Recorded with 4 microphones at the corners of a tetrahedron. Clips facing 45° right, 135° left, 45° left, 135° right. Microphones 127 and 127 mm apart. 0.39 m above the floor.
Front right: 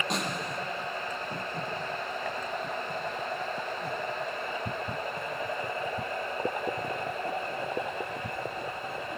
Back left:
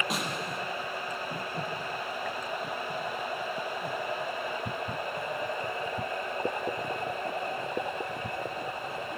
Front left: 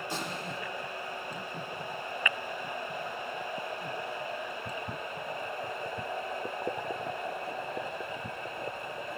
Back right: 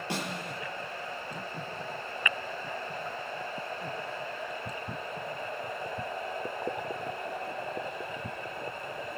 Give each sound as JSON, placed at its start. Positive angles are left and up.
{"t": 0.1, "sound": "a snare drum", "azimuth_deg": -140, "distance_m": 5.0}